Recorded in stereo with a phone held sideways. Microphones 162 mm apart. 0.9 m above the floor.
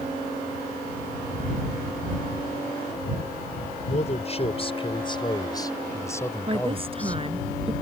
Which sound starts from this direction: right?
A woman speaking, at 6.5 s.